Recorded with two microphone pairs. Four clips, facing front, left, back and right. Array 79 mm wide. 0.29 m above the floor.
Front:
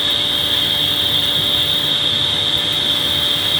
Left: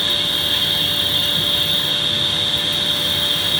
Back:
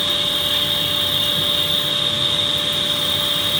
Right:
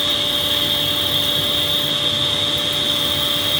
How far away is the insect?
About 2.0 m.